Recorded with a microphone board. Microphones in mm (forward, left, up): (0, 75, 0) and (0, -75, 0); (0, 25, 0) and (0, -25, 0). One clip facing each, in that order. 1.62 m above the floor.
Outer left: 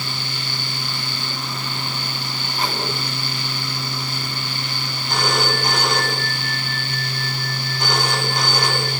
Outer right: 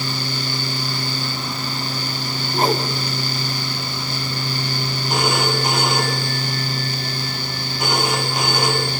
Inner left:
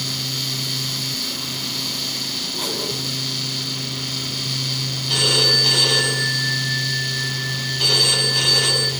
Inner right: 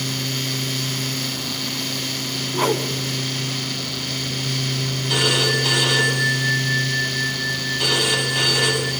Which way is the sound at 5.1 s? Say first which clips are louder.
Outer right 1 dB, even; 10° right (ahead or behind).